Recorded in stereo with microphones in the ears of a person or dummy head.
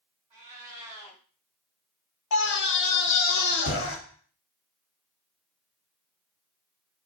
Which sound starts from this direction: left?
A scream, at 2.3 s.